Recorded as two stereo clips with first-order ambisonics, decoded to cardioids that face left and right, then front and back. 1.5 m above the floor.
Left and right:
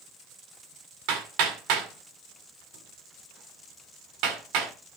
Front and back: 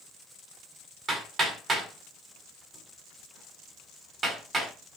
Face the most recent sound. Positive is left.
turn(degrees=-115)